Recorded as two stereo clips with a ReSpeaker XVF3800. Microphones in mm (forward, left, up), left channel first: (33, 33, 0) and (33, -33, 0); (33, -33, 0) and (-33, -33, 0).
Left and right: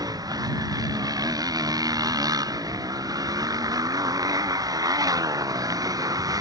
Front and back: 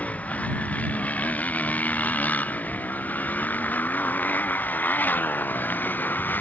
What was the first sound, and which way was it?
A motorcycle, 70° right.